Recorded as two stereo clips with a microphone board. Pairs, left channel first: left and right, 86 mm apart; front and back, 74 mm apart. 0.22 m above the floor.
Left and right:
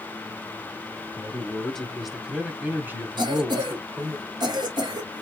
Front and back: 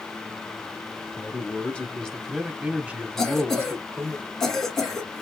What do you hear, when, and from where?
1.2 s a man speaking: 30° left, 1.2 m; by 4.2 s 140° right, 1.7 m
3.2 s a cough: 85° right, 2.0 m